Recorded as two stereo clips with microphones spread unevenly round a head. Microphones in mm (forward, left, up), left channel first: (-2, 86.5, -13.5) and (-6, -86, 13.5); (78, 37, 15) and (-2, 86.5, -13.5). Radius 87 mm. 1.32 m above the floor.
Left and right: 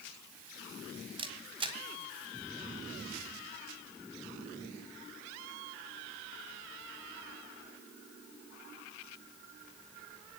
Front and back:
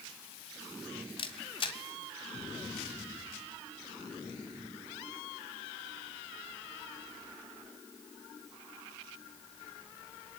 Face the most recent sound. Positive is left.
turn(degrees=-35)